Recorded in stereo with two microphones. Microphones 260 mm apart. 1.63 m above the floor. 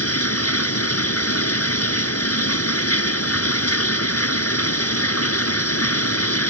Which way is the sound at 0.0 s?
65° left (ahead or behind).